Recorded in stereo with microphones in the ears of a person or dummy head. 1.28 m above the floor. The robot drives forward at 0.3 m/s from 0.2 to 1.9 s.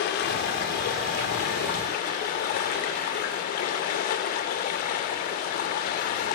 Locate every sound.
0.0 s running water: 55° left (ahead or behind), 2.5 m; by 6.4 s 45° left (ahead or behind), 2.5 m